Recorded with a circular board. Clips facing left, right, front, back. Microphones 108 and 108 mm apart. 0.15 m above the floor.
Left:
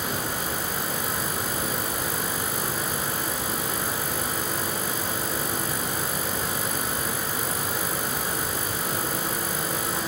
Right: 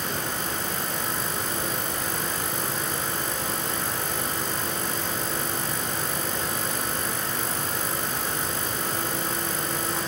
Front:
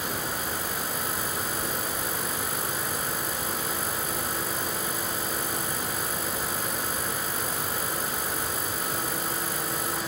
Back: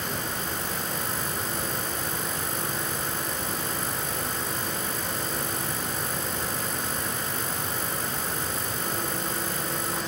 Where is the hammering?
No hammering in this recording.